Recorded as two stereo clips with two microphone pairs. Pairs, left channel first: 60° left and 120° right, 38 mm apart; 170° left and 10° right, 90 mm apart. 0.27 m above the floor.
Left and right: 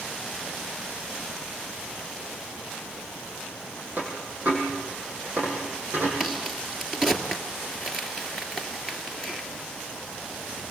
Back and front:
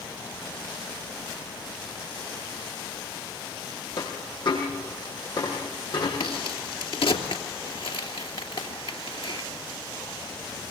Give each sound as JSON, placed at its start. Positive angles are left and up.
{"t": 4.0, "sound": "a dropped coin", "azimuth_deg": -155, "distance_m": 7.0}
{"t": 6.2, "sound": "a crack", "azimuth_deg": 160, "distance_m": 2.5}